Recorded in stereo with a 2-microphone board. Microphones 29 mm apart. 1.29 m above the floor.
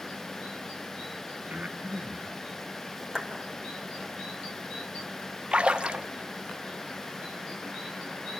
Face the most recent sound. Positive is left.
turn(degrees=-35)  # may be behind; listen again after turning